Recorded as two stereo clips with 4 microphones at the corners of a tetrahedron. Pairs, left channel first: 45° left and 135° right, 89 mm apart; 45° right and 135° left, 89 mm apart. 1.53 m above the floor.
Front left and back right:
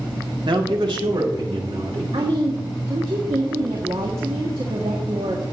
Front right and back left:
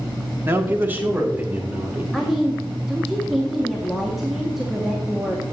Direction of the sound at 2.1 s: 140° right.